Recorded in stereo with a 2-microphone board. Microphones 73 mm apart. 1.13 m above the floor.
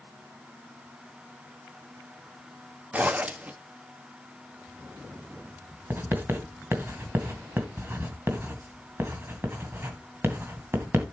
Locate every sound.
2.9 s a zipper: 20° right (ahead or behind), 1.1 m
5.9 s writing: 30° right (ahead or behind), 2 m